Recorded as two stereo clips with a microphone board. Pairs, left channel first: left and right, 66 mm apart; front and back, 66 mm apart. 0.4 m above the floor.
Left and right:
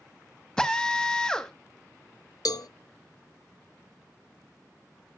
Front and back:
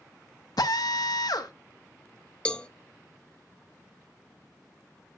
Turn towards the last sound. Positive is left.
turn(degrees=75)